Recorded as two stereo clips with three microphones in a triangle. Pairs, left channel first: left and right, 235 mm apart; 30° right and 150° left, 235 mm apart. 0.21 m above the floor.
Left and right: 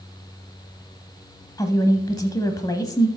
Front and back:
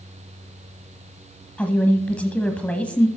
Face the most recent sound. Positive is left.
turn(degrees=45)